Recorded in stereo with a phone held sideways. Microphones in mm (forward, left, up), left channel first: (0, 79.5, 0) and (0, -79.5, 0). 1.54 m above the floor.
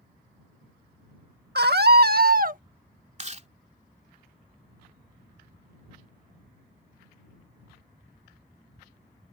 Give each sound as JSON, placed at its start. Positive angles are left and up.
{"t": 1.6, "sound": "a scream", "side_deg": -80}
{"t": 3.2, "sound": "chewing", "side_deg": -45}